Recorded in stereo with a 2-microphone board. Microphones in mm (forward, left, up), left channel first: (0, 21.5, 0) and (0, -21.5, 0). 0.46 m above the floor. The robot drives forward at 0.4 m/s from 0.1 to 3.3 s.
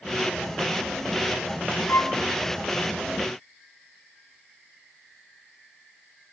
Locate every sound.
1.9 s a violin: 80° left, 0.8 m; by 2.1 s 85° left, 0.8 m